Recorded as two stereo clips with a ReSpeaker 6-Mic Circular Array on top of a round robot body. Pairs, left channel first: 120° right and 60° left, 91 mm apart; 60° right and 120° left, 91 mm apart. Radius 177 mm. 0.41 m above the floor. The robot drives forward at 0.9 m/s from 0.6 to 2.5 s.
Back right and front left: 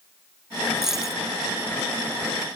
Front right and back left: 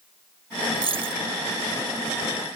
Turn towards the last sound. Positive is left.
turn(degrees=150)